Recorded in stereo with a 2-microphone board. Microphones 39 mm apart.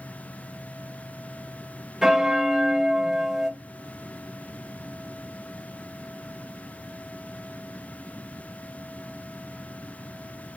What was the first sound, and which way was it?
A bell, 15° right (ahead or behind).